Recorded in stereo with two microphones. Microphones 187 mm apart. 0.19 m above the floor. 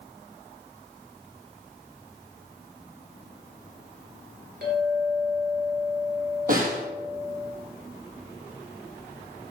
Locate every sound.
4.6 s a clink: 60° right (ahead or behind), 2.5 m
6.5 s a snare drum: 50° right (ahead or behind), 1.4 m